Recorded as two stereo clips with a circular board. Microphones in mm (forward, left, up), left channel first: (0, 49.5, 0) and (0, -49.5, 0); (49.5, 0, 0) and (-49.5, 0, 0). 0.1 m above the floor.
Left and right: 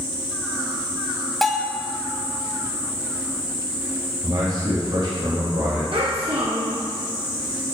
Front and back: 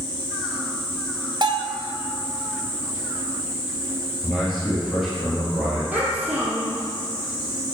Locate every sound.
1.4 s a bell: 175° left, 0.6 m
4.2 s a man speaking: 85° right, 2.5 m
5.9 s a child speaking: 100° right, 1.7 m